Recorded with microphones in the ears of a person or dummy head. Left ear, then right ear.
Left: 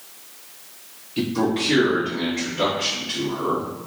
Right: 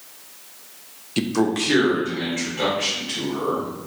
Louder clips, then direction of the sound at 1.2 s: Right 1 dB; 80° right.